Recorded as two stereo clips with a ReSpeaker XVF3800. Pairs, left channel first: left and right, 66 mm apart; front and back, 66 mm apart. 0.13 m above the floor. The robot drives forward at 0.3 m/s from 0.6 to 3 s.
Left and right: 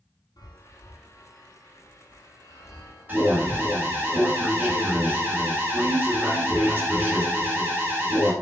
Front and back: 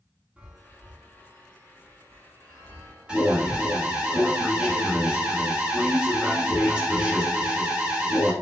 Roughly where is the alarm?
Behind right.